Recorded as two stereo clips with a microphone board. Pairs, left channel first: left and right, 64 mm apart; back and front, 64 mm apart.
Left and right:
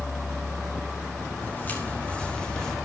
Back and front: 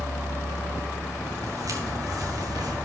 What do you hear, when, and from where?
1.4 s footsteps: 30° left, 4.5 m; by 2.8 s 5° left, 3 m